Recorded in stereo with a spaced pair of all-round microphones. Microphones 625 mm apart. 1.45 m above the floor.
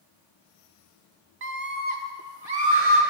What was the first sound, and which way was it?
A scream, 60° right (ahead or behind).